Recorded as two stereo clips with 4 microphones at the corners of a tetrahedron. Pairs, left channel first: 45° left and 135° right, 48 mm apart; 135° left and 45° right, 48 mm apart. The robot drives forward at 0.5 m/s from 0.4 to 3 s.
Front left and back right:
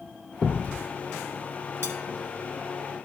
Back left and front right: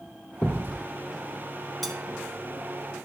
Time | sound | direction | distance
0.4 | a thud | 125° left | 1.1 m
1.8 | cutlery clinking | 140° right | 1.5 m